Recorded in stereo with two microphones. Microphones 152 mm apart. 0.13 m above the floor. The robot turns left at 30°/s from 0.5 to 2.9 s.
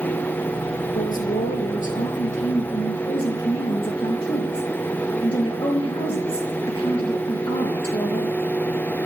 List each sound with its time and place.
0.9 s a woman speaking: 100° left, 3.5 m; by 8.4 s 40° left, 3.5 m